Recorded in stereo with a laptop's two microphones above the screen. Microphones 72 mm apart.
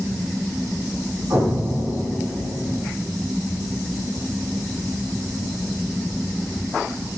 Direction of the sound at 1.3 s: 65° right (ahead or behind).